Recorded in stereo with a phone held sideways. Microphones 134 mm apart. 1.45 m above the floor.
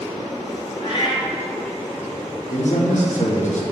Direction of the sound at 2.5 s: 70° left (ahead or behind).